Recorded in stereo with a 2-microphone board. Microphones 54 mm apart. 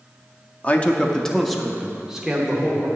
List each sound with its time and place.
0.6 s a man speaking: 30° left (ahead or behind), 0.7 m; by 2.9 s 15° right (ahead or behind), 1.6 m